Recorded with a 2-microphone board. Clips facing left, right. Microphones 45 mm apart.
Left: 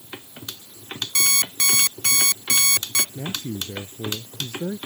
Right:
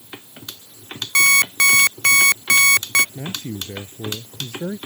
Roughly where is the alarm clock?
Right.